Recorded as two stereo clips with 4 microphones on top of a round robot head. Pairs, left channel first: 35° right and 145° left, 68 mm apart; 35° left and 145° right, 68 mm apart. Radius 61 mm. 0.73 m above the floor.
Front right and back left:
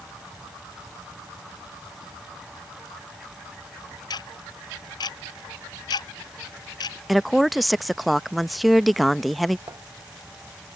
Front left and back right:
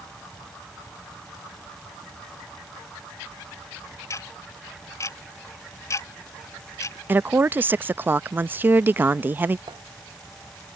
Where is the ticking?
15° right.